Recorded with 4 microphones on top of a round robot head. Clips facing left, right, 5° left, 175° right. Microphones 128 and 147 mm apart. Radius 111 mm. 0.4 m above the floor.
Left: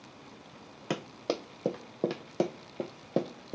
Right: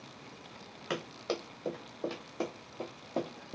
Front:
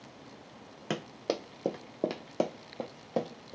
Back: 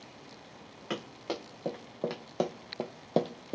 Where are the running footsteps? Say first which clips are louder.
Left 3 dB, front 3 dB; 50° left, 1.2 m; by 3.5 s 150° left, 0.7 m.